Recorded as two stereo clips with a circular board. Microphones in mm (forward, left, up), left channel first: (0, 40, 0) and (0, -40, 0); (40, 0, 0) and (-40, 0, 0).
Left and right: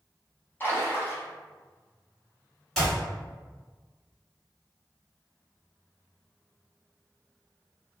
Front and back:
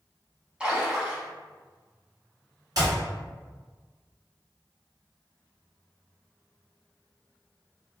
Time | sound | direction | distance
0.6 | a splash | 115° left | 0.8 m
2.8 | a clap | straight behind | 1.8 m